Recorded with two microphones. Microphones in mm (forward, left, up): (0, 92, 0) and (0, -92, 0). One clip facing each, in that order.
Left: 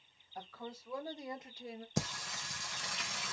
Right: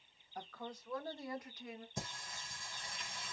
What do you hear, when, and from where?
0.3 s a woman speaking: centre (ahead or behind), 1.6 m; by 1.9 s 40° left (ahead or behind), 1.0 m
2.0 s singing: 90° left, 0.7 m